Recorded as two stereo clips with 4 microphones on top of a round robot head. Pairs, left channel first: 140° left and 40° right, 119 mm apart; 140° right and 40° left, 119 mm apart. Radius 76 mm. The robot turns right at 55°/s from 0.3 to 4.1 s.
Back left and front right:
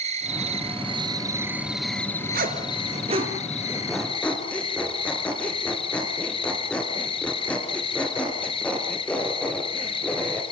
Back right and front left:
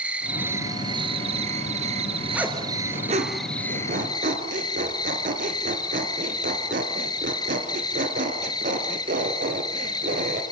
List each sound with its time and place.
0.0 s an insect: 35° right, 1.9 m; by 10.5 s 170° left, 1.9 m
2.3 s a zipper: 40° right, 3 m; by 10.4 s 55° left, 3 m